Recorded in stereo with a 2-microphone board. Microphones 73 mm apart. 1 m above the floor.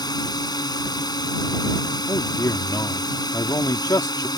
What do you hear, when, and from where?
0.0 s a drone: 70° left (ahead or behind)
2.1 s a man speaking: 65° left (ahead or behind)